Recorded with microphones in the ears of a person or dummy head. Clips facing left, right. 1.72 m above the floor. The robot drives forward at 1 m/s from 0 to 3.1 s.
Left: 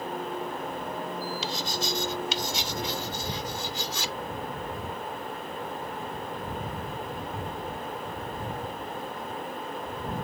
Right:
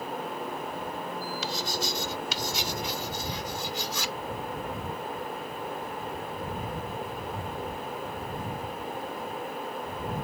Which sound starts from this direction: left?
Writing, at 1.4 s.